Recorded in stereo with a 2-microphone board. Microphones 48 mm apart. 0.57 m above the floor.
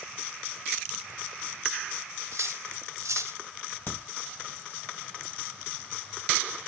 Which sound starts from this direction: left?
A crack, at 3.9 s.